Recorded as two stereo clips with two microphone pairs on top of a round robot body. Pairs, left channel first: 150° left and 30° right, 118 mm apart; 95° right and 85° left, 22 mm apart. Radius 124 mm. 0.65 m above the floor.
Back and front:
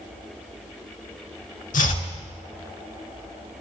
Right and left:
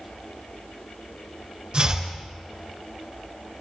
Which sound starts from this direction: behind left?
Chopping, at 1.7 s.